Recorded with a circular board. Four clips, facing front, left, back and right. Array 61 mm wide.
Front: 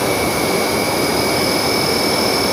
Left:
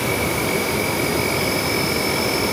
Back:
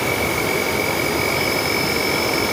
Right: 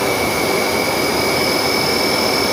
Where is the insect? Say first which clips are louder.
Right 4 dB, front 3 dB; 40° right, 1.9 m.